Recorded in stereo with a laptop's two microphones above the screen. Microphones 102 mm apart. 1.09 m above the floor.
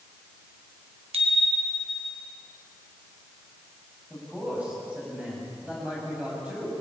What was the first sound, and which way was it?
A bicycle bell, 75° right (ahead or behind).